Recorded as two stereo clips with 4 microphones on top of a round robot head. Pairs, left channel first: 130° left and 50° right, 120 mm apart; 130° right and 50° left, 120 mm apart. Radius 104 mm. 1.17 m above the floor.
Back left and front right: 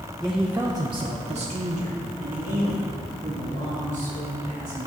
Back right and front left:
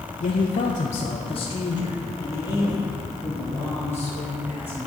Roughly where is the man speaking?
Behind right.